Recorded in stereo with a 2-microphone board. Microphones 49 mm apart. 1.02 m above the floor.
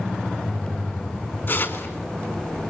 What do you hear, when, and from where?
1.5 s tearing paper: 40° left (ahead or behind), 3.5 m